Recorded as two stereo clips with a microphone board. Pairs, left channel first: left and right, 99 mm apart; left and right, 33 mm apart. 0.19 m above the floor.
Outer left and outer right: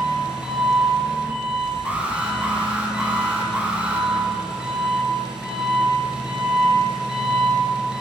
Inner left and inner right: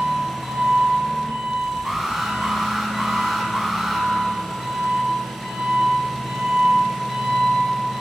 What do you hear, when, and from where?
0.0 s an engine running: 5° right (ahead or behind), 1.3 m
1.9 s an alarm: 15° right (ahead or behind), 0.9 m